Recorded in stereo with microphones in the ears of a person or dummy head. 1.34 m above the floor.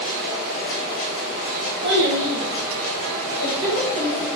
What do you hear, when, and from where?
1.8 s a child speaking: 60° right (ahead or behind), 0.7 m; by 4.3 s 70° right (ahead or behind), 1.7 m